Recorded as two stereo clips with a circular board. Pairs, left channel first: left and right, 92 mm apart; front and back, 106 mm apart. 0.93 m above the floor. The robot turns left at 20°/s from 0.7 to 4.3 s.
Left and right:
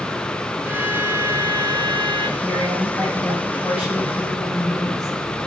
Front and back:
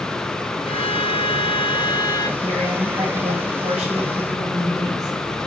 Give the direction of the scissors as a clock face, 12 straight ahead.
No scissors in this recording.